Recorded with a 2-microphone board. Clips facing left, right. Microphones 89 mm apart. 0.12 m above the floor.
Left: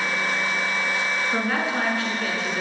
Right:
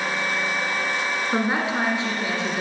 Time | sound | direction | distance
1.3 | a woman speaking | 20° right (ahead or behind) | 1.2 m